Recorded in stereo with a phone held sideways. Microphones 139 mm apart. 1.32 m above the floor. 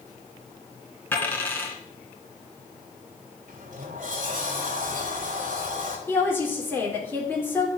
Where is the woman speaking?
15° left (ahead or behind), 4 m.